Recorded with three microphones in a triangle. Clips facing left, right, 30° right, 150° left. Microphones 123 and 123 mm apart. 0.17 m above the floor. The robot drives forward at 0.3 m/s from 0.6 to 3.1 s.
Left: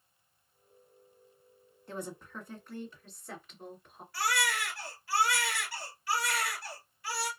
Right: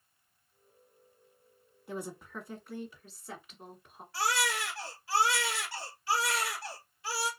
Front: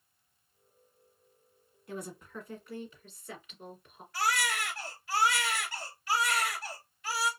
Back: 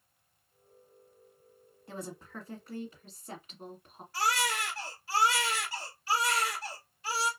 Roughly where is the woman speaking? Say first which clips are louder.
Right 1 dB, front 1 dB; behind.